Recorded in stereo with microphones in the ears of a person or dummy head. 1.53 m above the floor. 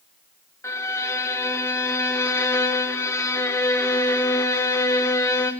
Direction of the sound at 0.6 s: 20° left (ahead or behind).